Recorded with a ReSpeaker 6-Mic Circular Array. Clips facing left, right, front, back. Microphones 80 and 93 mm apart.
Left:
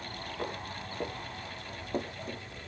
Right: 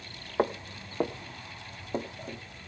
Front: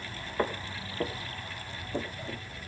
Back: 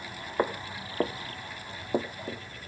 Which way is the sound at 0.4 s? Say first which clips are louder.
Right 10 dB, back 2 dB; 115° right.